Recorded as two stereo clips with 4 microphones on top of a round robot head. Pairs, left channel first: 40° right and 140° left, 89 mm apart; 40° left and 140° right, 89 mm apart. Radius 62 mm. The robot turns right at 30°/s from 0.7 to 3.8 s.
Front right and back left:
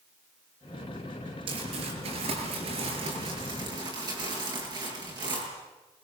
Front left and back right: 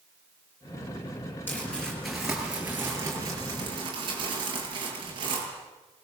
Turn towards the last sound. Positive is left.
turn(degrees=180)